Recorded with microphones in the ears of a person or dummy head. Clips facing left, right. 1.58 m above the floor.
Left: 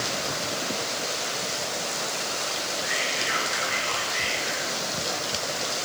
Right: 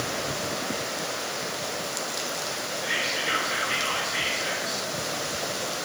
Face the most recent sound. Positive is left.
turn(degrees=-60)  # may be behind; listen again after turning